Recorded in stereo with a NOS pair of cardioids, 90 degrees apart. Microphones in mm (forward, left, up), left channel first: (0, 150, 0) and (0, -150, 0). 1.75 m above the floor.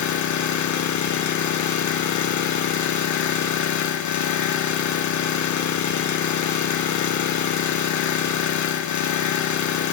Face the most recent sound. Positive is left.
turn(degrees=65)